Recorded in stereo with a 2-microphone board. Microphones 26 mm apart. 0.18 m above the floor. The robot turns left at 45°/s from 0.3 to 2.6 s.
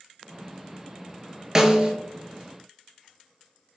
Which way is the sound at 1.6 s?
20° right (ahead or behind).